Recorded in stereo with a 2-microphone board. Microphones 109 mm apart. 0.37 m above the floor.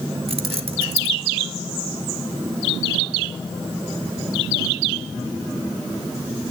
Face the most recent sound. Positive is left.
turn(degrees=-65)  # may be behind; listen again after turning